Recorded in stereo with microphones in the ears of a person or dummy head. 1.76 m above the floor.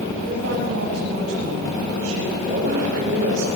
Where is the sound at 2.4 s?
45° right (ahead or behind), 5.5 m.